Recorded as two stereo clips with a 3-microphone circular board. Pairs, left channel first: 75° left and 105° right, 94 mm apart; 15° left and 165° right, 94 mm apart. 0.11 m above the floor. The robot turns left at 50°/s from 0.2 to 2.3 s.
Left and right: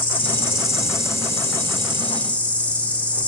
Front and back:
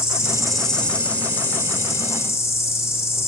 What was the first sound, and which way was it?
An insect, 120° left.